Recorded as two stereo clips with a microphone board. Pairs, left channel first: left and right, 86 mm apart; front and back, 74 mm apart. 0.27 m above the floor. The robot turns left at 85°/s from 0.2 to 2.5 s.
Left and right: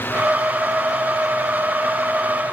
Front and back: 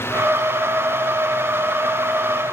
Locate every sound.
Only background noise.